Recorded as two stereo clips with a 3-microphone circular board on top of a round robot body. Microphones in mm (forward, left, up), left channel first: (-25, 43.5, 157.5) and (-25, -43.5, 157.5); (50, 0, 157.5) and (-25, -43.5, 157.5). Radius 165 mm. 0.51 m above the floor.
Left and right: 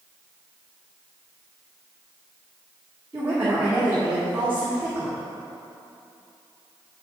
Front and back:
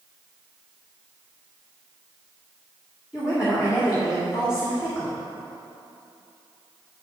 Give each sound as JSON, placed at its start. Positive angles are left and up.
{"t": 3.1, "sound": "a woman speaking", "azimuth_deg": -25, "distance_m": 2.0}